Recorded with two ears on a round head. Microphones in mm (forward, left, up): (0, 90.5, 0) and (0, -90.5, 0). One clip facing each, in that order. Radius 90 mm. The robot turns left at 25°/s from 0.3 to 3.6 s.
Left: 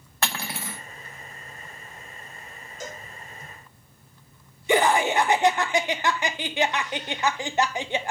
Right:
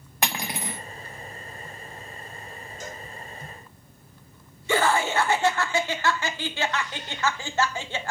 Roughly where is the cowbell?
Left.